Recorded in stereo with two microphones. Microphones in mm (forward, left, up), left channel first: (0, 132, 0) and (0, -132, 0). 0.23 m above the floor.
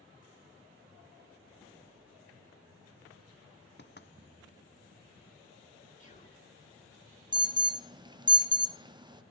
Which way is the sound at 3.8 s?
40° left (ahead or behind).